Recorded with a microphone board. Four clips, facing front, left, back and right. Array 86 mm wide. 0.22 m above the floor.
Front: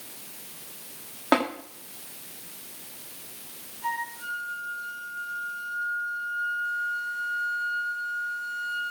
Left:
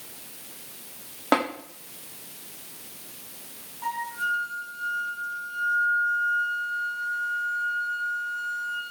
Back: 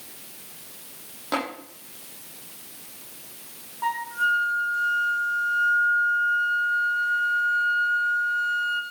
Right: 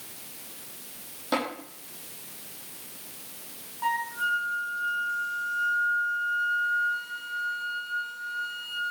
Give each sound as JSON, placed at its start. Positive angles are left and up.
{"t": 1.3, "sound": "tapping", "azimuth_deg": 60, "distance_m": 7.5}
{"t": 3.8, "sound": "a flute", "azimuth_deg": -165, "distance_m": 2.0}